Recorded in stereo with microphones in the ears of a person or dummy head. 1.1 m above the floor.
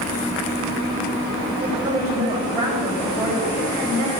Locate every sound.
1.6 s a woman speaking: 45° right (ahead or behind), 4.5 m